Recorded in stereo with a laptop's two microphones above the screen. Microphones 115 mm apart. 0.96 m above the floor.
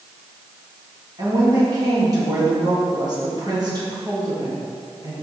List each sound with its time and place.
1.2 s a woman speaking: 35° right (ahead or behind), 1.5 m